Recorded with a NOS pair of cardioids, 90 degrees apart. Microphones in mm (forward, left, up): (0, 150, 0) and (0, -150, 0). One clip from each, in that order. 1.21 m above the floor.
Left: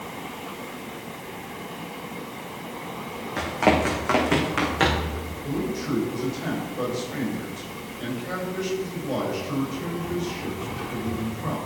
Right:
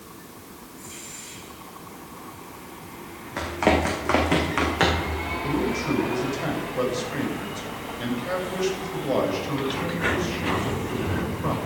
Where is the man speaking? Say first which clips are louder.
Right 2 dB; 40° right, 6 m.